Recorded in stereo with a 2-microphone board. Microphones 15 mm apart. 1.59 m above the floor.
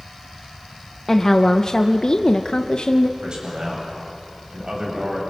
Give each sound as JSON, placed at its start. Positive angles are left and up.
{"t": 1.1, "sound": "a woman speaking", "side_deg": 20, "distance_m": 1.0}
{"t": 3.2, "sound": "a man speaking", "side_deg": -55, "distance_m": 8.0}